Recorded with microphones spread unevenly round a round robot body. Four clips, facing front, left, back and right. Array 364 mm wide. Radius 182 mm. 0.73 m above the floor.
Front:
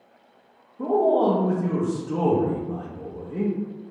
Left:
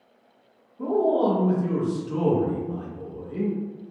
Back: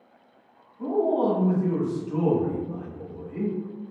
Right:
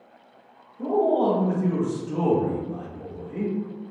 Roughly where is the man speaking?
Ahead.